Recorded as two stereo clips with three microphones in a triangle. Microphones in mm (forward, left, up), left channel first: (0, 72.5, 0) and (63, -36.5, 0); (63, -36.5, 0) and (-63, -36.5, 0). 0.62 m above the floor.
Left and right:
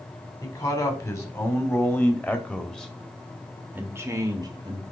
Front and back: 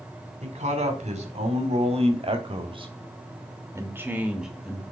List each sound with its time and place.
0.4 s a man speaking: 175° left, 2.5 m; by 4.8 s 80° right, 1.3 m